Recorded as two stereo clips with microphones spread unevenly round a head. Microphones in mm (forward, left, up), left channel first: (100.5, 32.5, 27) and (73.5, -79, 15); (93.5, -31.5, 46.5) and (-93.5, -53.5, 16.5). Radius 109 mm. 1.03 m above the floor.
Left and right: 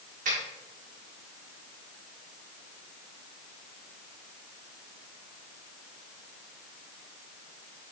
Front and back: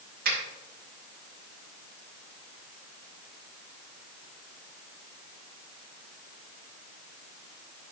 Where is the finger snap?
135° right, 4 m.